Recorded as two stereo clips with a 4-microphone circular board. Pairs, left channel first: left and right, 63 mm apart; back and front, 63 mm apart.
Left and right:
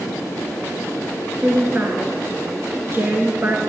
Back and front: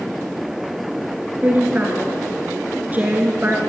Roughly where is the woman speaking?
Ahead right.